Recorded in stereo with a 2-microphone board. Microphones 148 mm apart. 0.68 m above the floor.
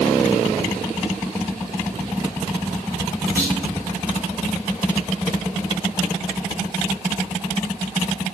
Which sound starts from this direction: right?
A clunk, at 3.4 s.